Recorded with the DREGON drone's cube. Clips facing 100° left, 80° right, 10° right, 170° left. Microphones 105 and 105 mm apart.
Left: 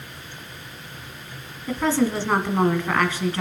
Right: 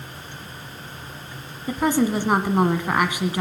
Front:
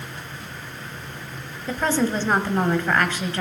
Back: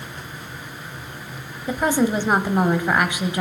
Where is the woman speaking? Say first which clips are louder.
Right 1 dB, back 3 dB; 135° right, 1.1 m.